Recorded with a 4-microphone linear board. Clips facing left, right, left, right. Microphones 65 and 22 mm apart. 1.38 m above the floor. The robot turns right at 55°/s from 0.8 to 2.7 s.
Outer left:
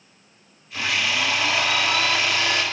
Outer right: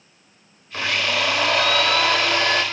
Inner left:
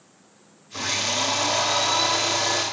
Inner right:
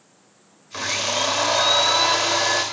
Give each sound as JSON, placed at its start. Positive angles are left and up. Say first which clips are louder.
{"t": 0.7, "sound": "a blender", "louder": "outer right 1 dB, inner right 1 dB", "azimuth_deg": -135, "distance_m": 3.0}